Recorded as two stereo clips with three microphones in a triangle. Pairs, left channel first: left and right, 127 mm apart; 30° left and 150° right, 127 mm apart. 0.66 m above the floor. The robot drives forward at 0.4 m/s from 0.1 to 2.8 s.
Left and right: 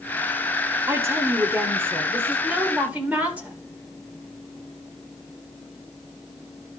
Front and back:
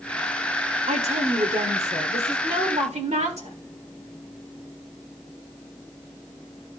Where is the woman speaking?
155° right, 1.1 m; by 3.5 s 165° right, 1.8 m.